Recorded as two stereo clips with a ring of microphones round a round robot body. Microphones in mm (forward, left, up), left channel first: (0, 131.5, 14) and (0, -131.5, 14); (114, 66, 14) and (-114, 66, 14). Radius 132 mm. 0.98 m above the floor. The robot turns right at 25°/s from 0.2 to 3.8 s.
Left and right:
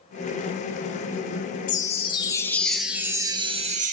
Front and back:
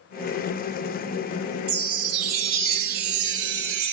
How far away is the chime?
About 1.0 m.